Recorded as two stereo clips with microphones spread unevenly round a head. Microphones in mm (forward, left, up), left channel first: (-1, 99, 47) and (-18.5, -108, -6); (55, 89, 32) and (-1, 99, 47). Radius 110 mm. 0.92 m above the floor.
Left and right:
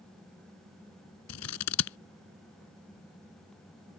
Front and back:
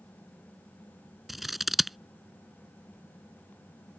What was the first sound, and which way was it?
Scissors, 85° left.